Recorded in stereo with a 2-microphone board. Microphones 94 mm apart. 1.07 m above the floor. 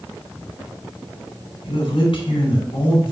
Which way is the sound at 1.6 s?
70° left (ahead or behind).